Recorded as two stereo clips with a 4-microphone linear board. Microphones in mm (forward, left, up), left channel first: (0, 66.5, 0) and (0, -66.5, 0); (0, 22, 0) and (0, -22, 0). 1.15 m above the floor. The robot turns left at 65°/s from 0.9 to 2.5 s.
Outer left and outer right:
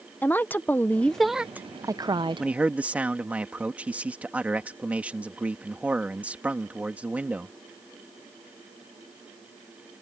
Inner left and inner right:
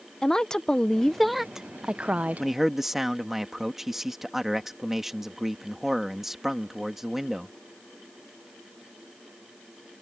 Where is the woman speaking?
20° left; by 2.5 s 80° right.